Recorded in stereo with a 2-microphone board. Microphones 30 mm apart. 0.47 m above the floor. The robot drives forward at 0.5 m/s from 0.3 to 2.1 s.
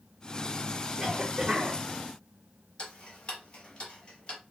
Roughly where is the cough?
Right.